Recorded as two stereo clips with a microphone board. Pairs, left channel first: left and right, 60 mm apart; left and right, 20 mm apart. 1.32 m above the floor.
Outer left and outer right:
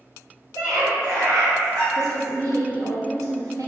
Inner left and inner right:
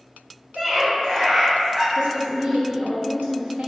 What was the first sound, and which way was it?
A scream, 65° right (ahead or behind).